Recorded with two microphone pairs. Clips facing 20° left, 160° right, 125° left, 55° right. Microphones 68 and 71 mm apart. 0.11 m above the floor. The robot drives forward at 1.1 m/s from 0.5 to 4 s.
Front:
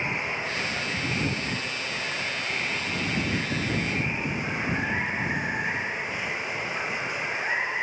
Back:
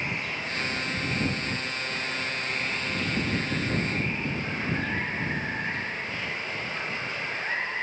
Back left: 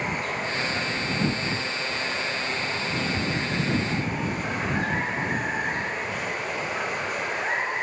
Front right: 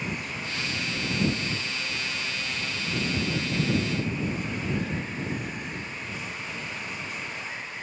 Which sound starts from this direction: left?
Running water, at 0.0 s.